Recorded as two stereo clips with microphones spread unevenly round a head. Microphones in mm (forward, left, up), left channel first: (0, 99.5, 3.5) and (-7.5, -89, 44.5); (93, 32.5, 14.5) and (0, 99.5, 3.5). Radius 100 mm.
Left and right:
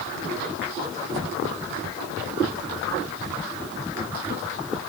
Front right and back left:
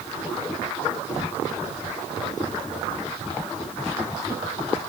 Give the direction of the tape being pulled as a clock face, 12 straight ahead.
No tape being pulled in this recording.